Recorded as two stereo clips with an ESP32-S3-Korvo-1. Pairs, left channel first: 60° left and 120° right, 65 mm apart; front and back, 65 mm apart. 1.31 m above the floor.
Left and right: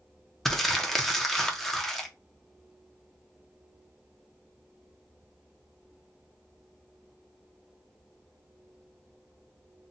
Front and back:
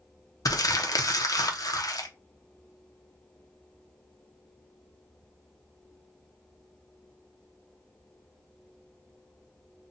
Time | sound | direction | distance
0.5 | crumpling | 25° right | 0.6 m